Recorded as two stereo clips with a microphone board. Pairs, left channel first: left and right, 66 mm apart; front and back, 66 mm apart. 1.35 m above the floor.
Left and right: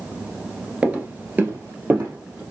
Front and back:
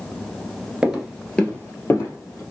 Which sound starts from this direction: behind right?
Footsteps, at 0.8 s.